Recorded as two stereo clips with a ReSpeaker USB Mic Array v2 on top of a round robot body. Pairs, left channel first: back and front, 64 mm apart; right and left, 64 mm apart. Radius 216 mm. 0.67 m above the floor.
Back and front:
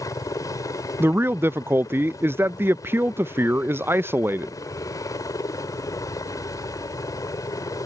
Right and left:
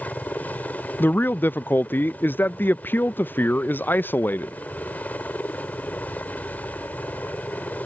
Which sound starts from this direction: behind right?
A helicopter, at 0.0 s.